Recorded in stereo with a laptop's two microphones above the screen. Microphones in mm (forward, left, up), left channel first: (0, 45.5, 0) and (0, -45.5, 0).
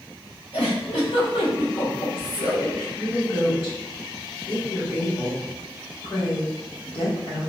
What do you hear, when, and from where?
0.5 s a giggle: 80° left, 2 m
3.0 s a woman speaking: 70° left (ahead or behind), 2.0 m